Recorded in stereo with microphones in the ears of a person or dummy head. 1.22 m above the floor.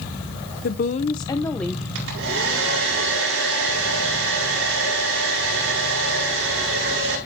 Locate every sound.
0.6 s a woman speaking: 55° left (ahead or behind), 0.6 m; by 1.9 s centre (ahead or behind), 0.9 m
1.9 s a hair dryer: 85° right, 5 m